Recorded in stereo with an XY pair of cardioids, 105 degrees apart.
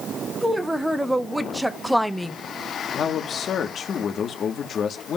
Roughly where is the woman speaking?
Ahead.